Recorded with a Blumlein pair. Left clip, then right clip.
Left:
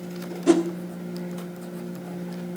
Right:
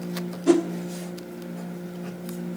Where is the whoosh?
5° left, 1.3 m.